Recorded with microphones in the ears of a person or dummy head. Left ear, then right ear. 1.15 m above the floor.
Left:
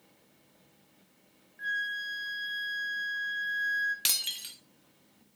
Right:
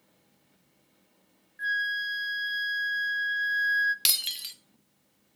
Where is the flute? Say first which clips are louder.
Right 4 dB; 20° right (ahead or behind), 0.5 m.